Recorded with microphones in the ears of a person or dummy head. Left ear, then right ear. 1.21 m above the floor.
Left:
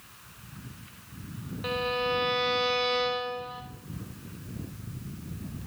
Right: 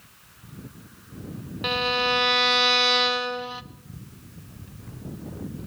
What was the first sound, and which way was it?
A violin, 40° right (ahead or behind).